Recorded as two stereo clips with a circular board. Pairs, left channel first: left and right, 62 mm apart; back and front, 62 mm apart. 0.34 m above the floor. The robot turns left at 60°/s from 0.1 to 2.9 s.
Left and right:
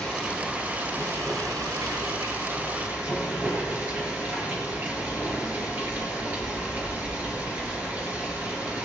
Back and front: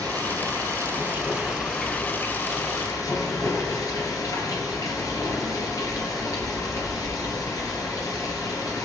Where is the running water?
15° left, 3.5 m; by 8.8 s 150° right, 3.5 m.